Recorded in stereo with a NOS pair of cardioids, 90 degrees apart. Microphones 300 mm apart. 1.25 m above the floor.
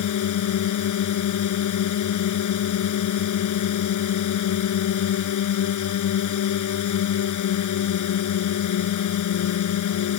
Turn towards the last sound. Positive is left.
turn(degrees=70)